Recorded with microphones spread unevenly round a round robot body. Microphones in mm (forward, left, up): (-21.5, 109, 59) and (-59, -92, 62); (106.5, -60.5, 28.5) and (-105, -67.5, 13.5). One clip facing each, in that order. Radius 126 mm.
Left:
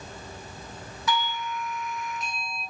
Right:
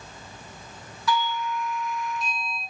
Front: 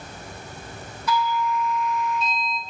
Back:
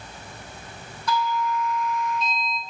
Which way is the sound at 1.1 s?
85° left.